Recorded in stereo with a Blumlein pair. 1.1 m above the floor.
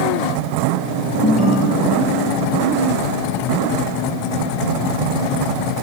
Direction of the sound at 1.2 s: 10° left.